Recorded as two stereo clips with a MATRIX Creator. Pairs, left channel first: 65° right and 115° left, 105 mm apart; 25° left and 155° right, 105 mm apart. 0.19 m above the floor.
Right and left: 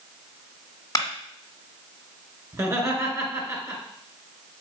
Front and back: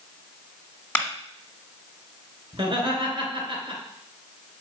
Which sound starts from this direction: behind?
Laughter, at 2.5 s.